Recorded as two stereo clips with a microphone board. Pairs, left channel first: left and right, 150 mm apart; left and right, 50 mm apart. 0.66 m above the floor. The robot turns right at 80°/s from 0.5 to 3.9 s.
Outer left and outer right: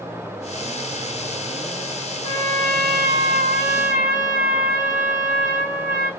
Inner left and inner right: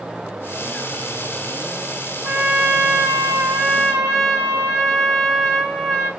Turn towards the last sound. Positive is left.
turn(degrees=-10)